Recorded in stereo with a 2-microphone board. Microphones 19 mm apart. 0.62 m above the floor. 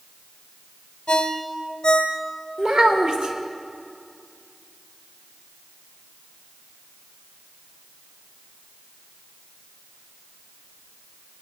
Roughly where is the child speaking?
Right.